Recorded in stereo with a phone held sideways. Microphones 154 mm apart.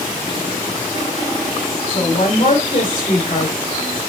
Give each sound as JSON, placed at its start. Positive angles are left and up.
{"t": 1.9, "sound": "a woman speaking", "side_deg": 50, "distance_m": 3.0}